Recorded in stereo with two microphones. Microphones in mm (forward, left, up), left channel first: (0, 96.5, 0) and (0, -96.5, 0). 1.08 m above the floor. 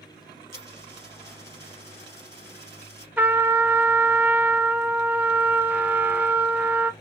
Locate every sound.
0.5 s a dropped coin: 20° right (ahead or behind), 3 m
3.2 s a trumpet: 10° right (ahead or behind), 0.6 m